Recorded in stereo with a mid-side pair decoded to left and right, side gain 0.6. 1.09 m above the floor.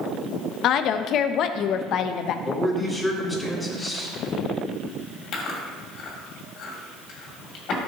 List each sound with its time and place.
0.6 s a woman speaking: 55° left, 0.7 m
2.5 s a man speaking: 15° left, 4 m
5.3 s chewing: 55° left, 2.5 m